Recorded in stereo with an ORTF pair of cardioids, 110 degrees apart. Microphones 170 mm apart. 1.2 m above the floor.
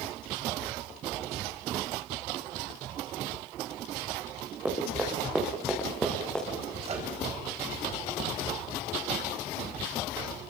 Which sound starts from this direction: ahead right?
A microwave, at 6.8 s.